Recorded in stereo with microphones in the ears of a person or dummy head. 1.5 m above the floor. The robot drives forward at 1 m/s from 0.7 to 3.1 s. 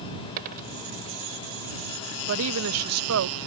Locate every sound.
0.4 s a dropped coin: 45° right (ahead or behind)
2.3 s a woman speaking: 70° right (ahead or behind); by 3.4 s 85° right